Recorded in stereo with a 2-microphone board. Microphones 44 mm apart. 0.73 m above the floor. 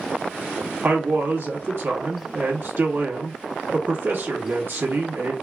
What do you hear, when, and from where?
0.8 s a man speaking: 60° right (ahead or behind), 1.0 m